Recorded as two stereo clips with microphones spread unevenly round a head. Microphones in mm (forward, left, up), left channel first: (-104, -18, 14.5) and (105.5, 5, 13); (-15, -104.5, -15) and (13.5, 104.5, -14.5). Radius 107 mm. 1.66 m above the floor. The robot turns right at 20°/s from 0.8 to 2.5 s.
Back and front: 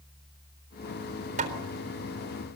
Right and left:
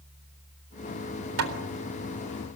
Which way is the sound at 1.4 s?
65° left.